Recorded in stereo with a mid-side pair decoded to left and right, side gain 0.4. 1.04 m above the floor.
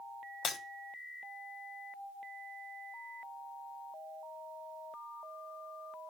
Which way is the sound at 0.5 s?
65° left.